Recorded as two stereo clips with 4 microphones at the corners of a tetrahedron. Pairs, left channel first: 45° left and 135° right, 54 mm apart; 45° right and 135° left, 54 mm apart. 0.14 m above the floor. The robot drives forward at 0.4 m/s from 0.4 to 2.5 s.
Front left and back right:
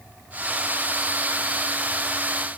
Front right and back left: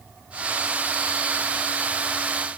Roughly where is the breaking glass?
I don't hear breaking glass.